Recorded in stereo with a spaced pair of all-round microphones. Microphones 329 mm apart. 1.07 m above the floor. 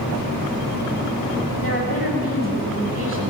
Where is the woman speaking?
35° left (ahead or behind), 9 m.